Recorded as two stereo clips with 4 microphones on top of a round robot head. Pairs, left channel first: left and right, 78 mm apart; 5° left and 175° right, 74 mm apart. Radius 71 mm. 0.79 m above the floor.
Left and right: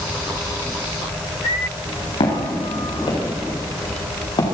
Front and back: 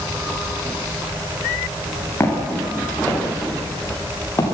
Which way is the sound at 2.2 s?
70° left.